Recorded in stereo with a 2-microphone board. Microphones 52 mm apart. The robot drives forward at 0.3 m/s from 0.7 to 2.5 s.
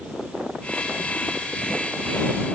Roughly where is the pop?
No pop in this recording.